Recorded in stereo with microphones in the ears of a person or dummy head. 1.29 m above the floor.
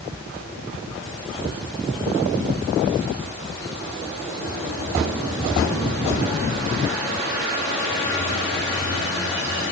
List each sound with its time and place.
Only background noise.